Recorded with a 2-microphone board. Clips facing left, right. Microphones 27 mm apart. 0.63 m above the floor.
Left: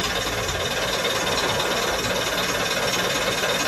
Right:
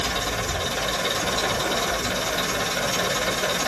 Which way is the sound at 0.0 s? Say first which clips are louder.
Left 1 dB; 60° left (ahead or behind).